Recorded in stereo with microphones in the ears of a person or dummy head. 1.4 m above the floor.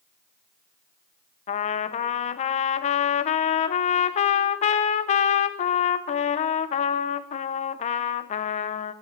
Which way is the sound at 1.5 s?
35° left (ahead or behind).